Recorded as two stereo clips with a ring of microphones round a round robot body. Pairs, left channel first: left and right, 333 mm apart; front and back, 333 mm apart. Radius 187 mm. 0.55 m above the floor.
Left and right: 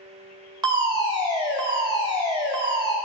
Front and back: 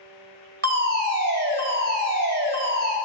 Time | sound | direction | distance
0.6 | a fire alarm | 155° right | 2 m